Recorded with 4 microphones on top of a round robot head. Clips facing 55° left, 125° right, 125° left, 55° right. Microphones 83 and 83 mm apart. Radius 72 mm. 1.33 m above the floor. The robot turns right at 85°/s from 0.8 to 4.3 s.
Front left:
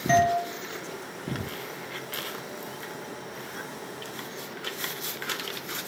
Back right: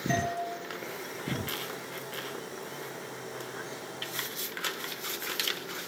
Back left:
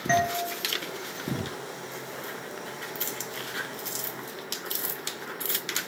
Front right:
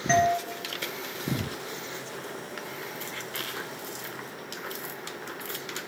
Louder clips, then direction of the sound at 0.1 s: Front left 10 dB, front right 3 dB; 35° left.